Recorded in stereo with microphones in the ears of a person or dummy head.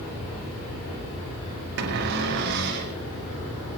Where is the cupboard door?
60° right (ahead or behind), 2.5 m.